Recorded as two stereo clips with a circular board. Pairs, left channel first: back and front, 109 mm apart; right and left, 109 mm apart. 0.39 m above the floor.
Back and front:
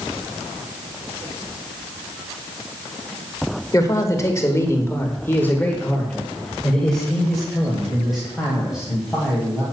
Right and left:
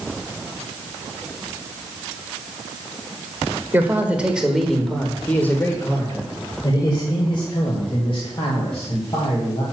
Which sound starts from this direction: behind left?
A man speaking, at 3.7 s.